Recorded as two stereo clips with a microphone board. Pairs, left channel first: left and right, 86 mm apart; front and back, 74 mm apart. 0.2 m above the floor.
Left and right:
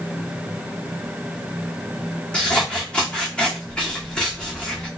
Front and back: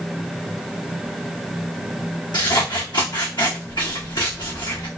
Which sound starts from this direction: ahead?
Scissors, at 2.3 s.